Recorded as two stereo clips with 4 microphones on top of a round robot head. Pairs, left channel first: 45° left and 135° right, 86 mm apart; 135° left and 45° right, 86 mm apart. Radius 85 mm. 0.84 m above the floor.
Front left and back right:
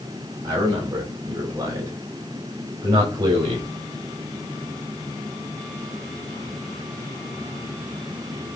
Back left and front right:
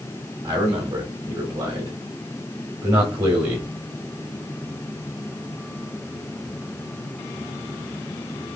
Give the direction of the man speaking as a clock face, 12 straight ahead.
3 o'clock.